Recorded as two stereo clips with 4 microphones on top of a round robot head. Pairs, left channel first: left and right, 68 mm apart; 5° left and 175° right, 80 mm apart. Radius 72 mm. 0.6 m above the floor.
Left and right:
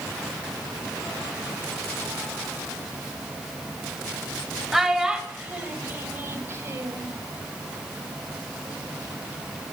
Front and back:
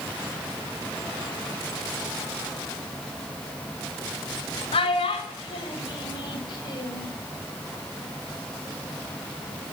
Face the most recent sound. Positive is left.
turn(degrees=-45)